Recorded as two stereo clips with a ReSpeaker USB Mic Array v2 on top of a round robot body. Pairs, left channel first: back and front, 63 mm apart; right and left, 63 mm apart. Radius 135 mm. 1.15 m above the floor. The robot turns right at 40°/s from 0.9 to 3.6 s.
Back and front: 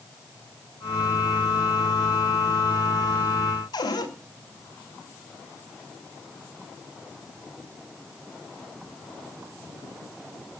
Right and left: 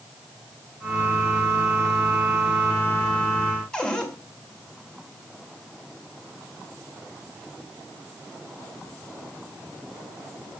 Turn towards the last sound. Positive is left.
turn(degrees=-170)